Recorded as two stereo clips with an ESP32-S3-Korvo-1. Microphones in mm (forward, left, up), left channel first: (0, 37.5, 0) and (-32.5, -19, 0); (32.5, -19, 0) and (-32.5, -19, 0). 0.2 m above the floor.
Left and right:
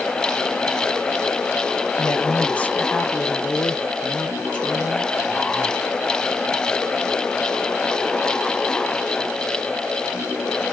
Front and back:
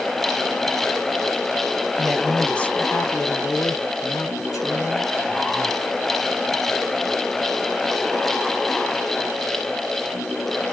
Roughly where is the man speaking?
Left.